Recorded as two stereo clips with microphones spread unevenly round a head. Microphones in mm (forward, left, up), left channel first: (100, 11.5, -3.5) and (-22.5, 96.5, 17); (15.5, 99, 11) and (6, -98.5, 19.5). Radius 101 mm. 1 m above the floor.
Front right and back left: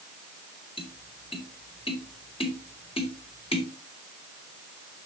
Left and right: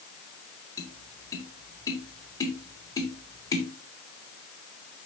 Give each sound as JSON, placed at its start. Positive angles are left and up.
{"t": 0.8, "sound": "tapping", "azimuth_deg": 15, "distance_m": 3.0}